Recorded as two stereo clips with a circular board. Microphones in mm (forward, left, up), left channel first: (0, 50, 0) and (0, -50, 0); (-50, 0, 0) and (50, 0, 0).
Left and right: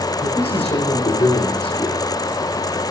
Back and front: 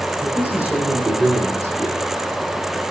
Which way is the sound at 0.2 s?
80° left.